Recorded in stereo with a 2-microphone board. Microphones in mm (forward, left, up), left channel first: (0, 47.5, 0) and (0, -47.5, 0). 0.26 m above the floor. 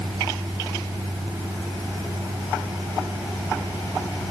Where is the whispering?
No whispering in this recording.